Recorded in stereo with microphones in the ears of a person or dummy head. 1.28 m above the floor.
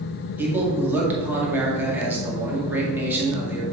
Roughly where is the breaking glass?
No breaking glass in this recording.